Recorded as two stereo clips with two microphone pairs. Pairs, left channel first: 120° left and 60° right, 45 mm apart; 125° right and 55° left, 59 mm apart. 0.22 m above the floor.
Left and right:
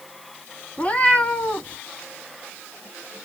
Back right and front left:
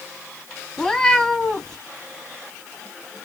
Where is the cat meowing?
160° left, 0.7 m.